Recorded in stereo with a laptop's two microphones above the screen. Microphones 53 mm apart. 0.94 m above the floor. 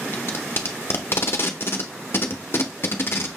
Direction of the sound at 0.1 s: 45° left (ahead or behind).